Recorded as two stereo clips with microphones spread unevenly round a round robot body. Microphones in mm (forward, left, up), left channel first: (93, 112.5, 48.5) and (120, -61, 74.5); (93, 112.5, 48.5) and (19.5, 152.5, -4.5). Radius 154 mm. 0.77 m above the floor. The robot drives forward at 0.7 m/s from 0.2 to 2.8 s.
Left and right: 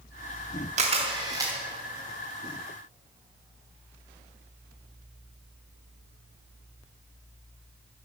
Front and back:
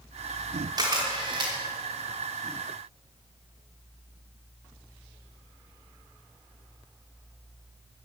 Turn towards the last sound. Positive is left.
turn(degrees=-170)